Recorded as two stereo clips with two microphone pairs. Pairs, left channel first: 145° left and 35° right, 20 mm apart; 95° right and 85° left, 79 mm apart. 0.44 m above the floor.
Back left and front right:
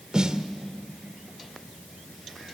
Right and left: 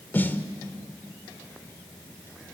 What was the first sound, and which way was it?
A snare drum, 45° right.